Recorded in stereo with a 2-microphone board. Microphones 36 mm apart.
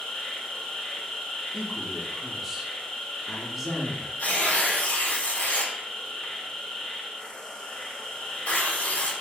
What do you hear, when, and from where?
0.0 s an insect: 25° left (ahead or behind), 1.1 m
1.5 s a man speaking: 5° right (ahead or behind), 0.7 m
4.2 s tearing paper: 45° left (ahead or behind), 0.9 m